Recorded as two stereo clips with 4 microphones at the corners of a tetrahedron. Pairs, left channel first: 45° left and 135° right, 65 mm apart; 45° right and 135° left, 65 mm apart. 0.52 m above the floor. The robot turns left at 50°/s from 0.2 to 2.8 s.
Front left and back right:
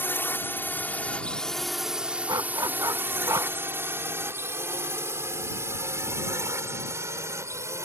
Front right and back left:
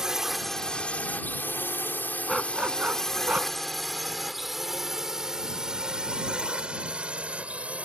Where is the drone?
60° left; by 7.9 s 160° right.